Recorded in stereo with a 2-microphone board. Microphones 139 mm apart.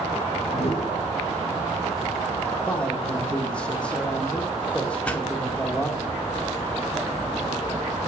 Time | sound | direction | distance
0.5 | a whoosh | 50° left (ahead or behind) | 1.2 m
2.7 | a man speaking | 10° left (ahead or behind) | 0.8 m
5.0 | a pop | 10° left (ahead or behind) | 0.7 m